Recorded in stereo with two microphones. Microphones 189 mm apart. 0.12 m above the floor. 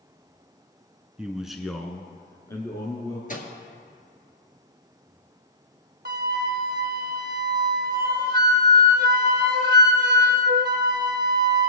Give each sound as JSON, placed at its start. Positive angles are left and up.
{"t": 1.2, "sound": "a man speaking", "side_deg": -5, "distance_m": 1.2}
{"t": 3.3, "sound": "a microwave", "side_deg": 45, "distance_m": 1.9}
{"t": 6.0, "sound": "a flute", "side_deg": -60, "distance_m": 0.7}